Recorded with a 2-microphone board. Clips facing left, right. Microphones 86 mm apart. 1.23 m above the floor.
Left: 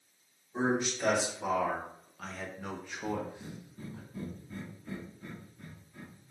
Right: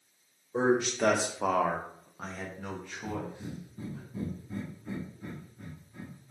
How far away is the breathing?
About 0.8 m.